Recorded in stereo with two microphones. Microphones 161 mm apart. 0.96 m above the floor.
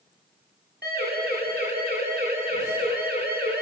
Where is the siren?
85° right, 9 m.